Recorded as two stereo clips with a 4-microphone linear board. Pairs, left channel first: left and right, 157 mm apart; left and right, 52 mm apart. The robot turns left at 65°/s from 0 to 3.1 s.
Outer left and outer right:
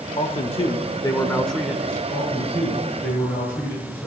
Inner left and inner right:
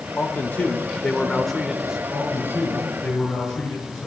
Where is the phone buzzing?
I don't hear a phone buzzing.